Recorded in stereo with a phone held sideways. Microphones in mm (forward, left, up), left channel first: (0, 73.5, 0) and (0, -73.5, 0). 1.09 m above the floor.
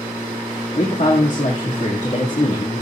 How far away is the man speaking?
About 1.9 m.